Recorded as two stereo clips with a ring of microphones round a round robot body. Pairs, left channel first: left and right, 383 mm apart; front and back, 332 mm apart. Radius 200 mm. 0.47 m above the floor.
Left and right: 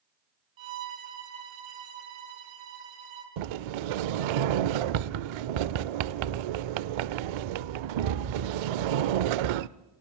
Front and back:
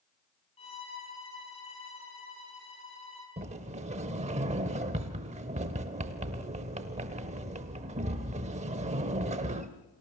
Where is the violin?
75° right, 4.5 m.